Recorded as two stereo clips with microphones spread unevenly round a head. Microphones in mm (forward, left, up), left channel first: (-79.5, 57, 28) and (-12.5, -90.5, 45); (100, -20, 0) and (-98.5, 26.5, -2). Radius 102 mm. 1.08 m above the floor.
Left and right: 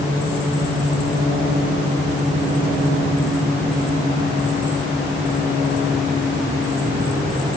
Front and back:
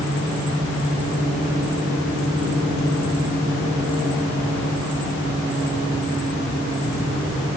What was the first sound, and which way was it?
Only background noise.